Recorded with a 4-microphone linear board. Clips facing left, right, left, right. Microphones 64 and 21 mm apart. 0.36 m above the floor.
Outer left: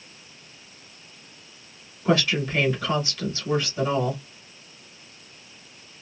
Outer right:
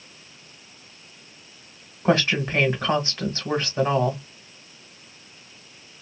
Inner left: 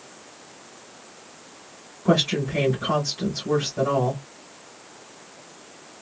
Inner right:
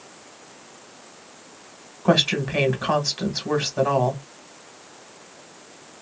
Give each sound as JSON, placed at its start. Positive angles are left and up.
{"t": 2.0, "sound": "a woman speaking", "side_deg": -40, "distance_m": 1.3}